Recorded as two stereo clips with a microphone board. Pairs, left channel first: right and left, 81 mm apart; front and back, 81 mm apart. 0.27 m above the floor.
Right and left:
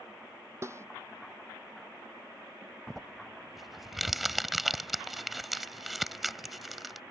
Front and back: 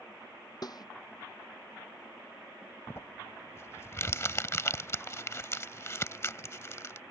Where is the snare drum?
35° left.